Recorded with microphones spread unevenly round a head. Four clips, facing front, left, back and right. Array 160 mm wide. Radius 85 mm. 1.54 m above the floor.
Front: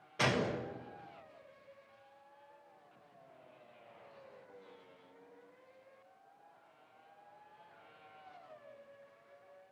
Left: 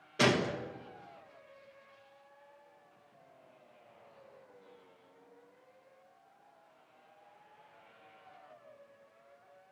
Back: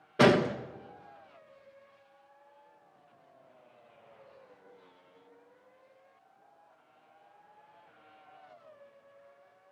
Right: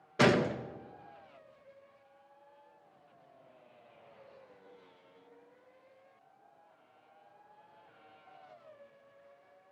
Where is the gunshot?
175° right, 1.4 m.